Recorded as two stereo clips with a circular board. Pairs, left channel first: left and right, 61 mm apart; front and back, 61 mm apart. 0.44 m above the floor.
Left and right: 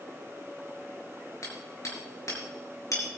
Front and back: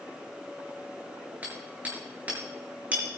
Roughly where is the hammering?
Behind left.